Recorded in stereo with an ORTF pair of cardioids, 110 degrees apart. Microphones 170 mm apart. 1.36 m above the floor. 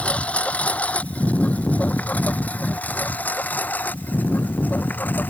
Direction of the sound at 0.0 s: 5° left.